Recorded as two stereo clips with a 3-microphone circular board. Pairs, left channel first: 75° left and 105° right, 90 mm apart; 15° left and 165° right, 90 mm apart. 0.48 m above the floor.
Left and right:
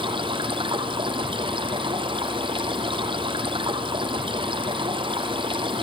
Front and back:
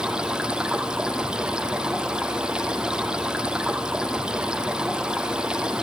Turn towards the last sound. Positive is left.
turn(degrees=-85)